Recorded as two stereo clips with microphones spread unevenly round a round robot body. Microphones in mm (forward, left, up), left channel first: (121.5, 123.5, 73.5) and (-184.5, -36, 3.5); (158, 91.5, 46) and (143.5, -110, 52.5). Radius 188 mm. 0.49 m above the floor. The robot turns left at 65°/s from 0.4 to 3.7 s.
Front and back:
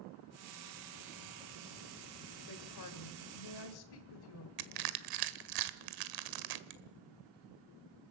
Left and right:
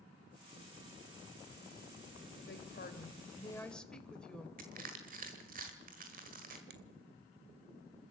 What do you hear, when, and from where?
2.5 s a woman speaking: 80° left, 2.5 m; by 4.5 s straight ahead, 2.5 m
4.6 s crushing: 155° right, 1.3 m
6.7 s a finger snap: 115° right, 1.4 m